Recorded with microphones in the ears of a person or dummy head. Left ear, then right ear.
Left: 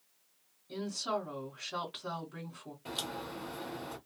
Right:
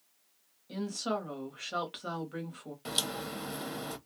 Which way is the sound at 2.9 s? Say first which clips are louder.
Right 5 dB; 40° right (ahead or behind).